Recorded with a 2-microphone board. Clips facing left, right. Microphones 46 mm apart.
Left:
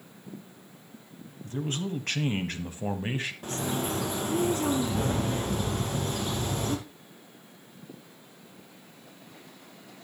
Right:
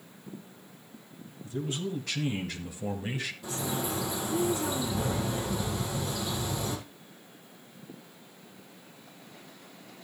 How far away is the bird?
About 2.5 m.